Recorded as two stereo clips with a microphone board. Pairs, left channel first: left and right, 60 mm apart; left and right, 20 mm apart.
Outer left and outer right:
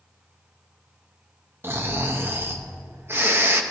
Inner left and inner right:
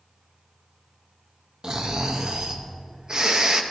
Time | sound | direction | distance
1.6 | snoring | 40° right (ahead or behind) | 0.6 m